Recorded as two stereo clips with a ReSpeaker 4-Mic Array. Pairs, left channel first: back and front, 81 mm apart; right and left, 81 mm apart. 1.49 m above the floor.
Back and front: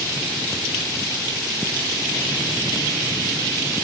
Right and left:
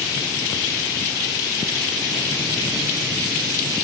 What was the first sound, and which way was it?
Only background noise.